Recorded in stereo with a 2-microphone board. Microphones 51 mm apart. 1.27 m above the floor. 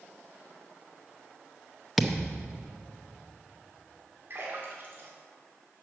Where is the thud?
Centre (ahead or behind), 0.6 m.